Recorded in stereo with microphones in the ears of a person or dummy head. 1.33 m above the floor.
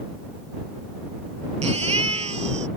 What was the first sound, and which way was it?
A baby crying, 35° right (ahead or behind).